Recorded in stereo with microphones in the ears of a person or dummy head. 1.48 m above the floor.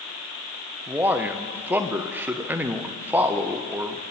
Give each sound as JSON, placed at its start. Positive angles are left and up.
{"t": 0.9, "sound": "a man speaking", "side_deg": -15, "distance_m": 0.8}